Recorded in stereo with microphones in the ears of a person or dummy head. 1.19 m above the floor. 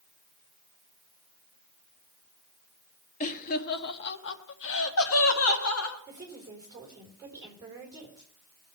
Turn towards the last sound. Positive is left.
turn(degrees=-20)  # may be behind; listen again after turning